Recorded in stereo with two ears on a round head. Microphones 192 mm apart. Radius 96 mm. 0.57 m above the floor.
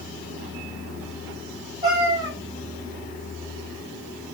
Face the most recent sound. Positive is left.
turn(degrees=-25)  # may be behind; listen again after turning